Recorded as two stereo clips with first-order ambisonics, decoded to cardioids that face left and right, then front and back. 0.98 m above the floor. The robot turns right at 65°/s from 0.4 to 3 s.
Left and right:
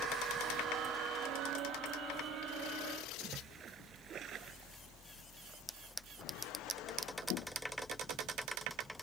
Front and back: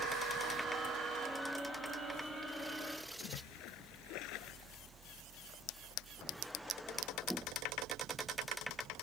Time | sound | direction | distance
3.2 | a splash | 30° right | ?